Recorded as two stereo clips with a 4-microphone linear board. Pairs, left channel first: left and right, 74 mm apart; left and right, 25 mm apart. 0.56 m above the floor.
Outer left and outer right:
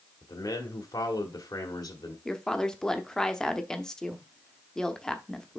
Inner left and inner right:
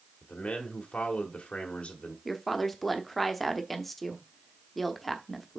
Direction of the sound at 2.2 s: 10° left (ahead or behind).